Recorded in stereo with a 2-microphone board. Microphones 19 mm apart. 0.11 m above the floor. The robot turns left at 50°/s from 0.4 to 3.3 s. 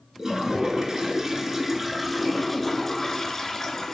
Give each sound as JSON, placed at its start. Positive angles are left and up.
{"t": 0.2, "sound": "a toilet flushing", "side_deg": -30, "distance_m": 0.5}